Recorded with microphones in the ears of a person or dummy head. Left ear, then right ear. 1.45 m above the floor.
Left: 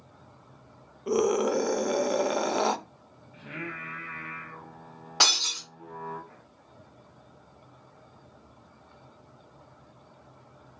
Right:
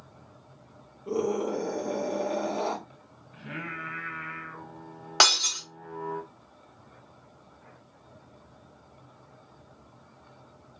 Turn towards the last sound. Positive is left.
turn(degrees=-30)  # may be behind; listen again after turning